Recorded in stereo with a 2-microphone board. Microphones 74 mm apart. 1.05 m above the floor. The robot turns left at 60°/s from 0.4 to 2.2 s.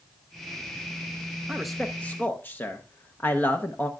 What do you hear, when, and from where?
1.5 s a man speaking: 170° right, 0.8 m; by 3.9 s 150° left, 0.8 m